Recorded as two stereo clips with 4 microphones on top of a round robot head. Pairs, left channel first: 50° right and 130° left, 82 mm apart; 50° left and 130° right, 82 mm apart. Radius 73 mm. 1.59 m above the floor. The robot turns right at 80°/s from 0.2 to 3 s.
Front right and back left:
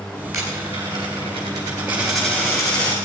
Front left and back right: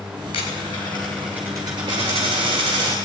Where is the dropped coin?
65° left, 3.5 m; by 3.0 s 80° right, 3.5 m.